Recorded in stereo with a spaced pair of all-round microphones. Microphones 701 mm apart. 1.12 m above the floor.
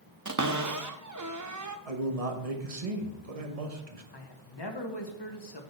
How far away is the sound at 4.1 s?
About 1.2 m.